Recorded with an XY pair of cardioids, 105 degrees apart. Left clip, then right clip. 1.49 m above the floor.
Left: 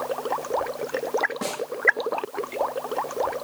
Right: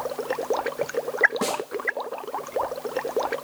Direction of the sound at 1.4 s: 30° right.